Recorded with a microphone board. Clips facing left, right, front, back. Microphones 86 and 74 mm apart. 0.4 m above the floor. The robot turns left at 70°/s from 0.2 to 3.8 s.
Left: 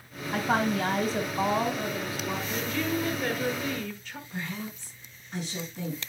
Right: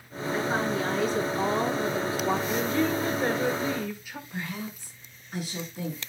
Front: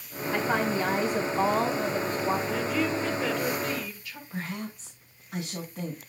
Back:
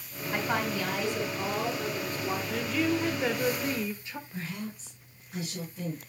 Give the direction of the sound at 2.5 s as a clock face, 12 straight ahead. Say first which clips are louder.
Right 4 dB, front 1 dB; 2 o'clock.